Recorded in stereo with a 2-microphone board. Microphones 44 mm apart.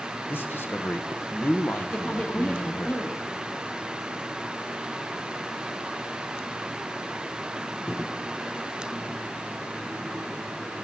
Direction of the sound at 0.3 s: 55° left (ahead or behind).